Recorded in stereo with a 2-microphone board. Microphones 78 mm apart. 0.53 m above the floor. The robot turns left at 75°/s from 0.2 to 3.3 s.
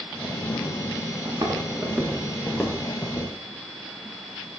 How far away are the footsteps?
About 7 m.